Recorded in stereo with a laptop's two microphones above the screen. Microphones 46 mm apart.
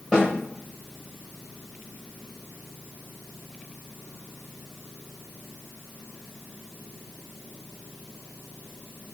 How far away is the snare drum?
About 1.1 m.